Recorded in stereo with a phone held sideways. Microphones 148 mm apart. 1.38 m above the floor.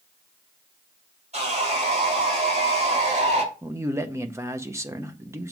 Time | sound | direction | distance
1.3 | sawing | 50° right (ahead or behind) | 4 m
3.6 | a man speaking | 20° right (ahead or behind) | 1.0 m